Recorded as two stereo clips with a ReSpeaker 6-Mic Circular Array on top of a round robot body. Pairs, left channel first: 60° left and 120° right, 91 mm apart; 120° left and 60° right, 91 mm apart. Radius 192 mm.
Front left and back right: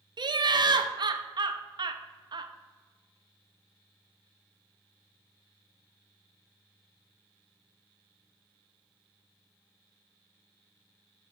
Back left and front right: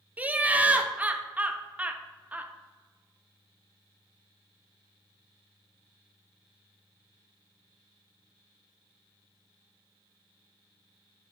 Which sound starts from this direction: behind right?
Laughter, at 0.2 s.